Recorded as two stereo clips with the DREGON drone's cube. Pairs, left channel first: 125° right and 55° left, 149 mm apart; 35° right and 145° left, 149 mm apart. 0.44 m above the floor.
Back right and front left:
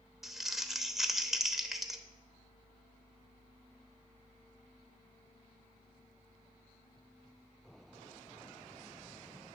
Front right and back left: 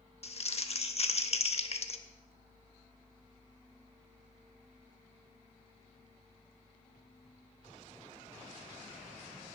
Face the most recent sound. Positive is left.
turn(degrees=-30)